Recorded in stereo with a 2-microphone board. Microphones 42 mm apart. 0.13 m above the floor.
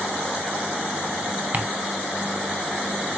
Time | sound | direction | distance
1.5 | ticking | 40° right (ahead or behind) | 1.0 m